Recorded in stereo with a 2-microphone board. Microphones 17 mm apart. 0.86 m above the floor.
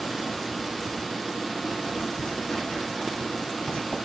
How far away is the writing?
About 7 m.